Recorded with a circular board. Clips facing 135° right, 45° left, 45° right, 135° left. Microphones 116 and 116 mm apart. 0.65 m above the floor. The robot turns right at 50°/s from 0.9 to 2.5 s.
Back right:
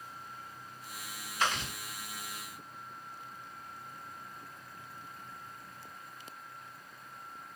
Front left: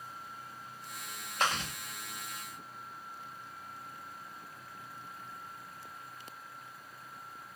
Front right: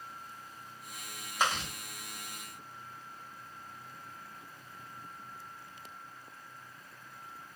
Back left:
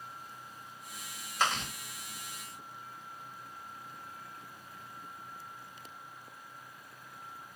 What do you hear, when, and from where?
1.4 s chewing: 30° left, 1.9 m; by 1.7 s 45° left, 1.9 m